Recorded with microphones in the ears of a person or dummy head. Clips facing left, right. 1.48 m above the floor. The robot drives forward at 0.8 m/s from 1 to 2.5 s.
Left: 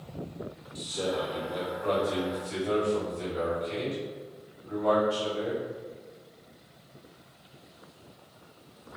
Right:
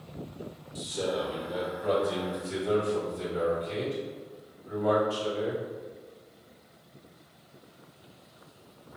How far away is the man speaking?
About 1.0 m.